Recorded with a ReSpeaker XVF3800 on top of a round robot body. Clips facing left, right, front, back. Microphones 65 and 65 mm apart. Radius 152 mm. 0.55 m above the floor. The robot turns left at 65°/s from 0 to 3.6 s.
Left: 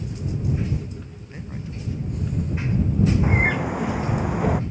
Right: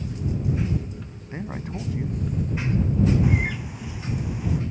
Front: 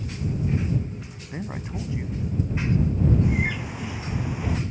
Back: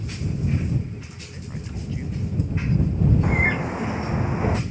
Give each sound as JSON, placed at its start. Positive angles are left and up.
{"t": 1.3, "sound": "a man speaking", "azimuth_deg": -35}
{"t": 3.2, "sound": "a bird", "azimuth_deg": 145}